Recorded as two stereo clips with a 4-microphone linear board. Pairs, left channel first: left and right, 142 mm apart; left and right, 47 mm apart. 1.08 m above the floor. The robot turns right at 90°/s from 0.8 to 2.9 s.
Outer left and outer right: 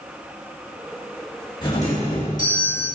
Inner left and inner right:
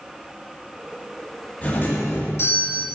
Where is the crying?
I don't hear crying.